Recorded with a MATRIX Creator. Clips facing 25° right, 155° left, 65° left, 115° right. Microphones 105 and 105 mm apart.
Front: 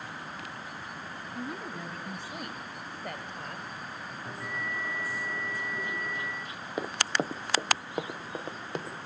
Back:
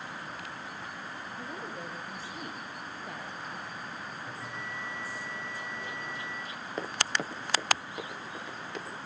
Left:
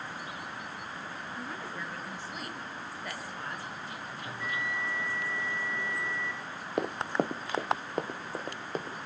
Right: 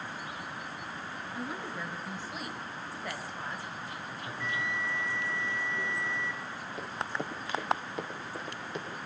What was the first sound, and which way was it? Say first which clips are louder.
A woman speaking: front 4 dB, right 3 dB; 30° right.